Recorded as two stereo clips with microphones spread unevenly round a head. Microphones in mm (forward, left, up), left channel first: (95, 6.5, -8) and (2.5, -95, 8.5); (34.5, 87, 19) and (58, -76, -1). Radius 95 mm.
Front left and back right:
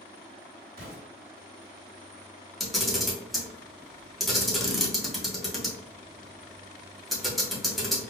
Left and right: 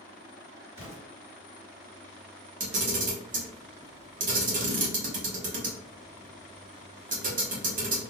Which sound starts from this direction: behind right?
An explosion, at 0.8 s.